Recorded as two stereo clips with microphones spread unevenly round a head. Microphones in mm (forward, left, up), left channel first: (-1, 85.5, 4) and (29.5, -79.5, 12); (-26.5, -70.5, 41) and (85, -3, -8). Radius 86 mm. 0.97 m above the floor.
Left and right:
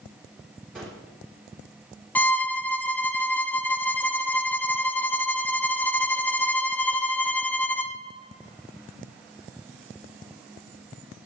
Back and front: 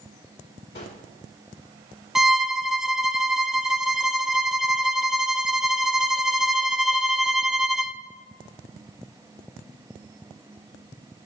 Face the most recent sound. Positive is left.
turn(degrees=40)